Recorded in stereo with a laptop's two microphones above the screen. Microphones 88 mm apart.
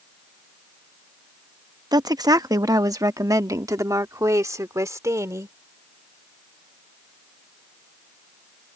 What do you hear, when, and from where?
1.9 s a woman speaking: 50° right (ahead or behind); by 5.5 s 35° right (ahead or behind)